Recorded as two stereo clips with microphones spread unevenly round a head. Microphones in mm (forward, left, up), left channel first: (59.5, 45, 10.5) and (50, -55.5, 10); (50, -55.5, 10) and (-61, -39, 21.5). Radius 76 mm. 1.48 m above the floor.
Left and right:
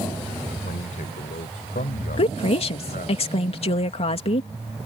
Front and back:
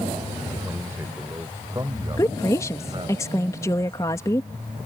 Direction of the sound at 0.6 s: 95° left.